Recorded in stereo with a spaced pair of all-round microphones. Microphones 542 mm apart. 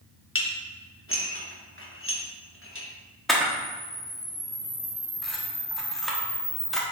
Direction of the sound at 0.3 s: 25° left (ahead or behind).